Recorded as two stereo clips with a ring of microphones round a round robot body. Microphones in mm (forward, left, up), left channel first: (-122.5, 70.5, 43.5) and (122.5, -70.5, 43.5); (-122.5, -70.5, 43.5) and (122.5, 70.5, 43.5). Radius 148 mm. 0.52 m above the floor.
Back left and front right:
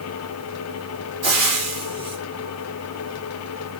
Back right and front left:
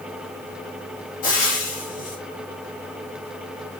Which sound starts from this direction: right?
Frying, at 1.2 s.